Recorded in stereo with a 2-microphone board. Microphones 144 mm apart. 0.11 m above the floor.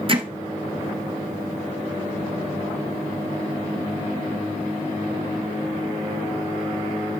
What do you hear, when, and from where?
0.1 s hammering: 40° right (ahead or behind), 1.5 m